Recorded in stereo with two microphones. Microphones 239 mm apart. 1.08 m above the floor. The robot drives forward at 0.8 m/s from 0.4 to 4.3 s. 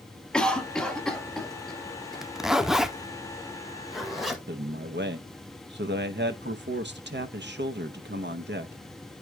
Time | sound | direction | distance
0.3 | a cough | 5° left (ahead or behind) | 1.4 m
2.2 | a zipper | centre (ahead or behind) | 0.6 m
4.5 | a man speaking | 45° right (ahead or behind) | 0.7 m